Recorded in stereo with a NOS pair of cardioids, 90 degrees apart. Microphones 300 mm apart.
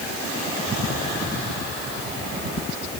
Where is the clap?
No clap in this recording.